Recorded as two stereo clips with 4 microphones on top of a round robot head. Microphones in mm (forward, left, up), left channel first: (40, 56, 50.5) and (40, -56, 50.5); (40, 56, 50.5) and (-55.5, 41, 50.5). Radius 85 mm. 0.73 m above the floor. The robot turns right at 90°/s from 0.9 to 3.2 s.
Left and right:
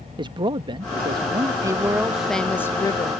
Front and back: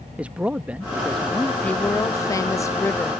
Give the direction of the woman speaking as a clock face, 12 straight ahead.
2 o'clock.